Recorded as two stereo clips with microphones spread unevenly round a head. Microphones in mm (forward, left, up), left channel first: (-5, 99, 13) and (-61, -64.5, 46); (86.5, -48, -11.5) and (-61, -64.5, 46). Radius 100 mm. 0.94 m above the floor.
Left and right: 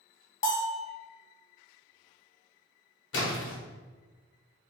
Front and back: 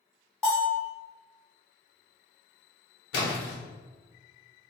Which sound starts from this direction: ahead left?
A splash, at 3.1 s.